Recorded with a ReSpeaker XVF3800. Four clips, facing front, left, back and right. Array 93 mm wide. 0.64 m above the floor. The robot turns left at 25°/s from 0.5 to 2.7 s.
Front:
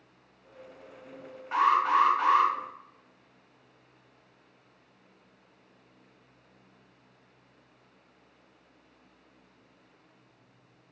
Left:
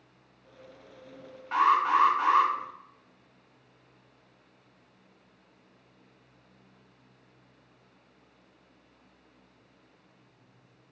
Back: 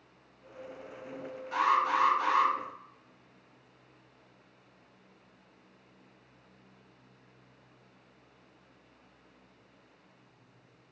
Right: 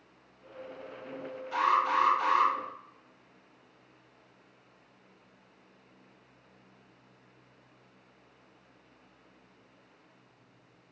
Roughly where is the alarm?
Ahead left.